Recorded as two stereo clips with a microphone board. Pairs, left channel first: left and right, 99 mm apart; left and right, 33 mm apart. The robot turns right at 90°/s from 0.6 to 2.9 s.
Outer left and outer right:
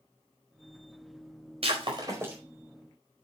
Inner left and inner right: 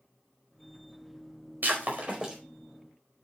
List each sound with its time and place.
1.6 s breaking glass: 80° right, 4.5 m; by 2.4 s 15° right (ahead or behind), 4.5 m